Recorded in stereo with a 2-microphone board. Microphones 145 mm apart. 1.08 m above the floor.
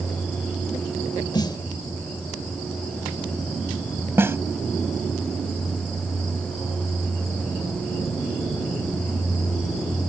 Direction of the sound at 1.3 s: 30° left (ahead or behind).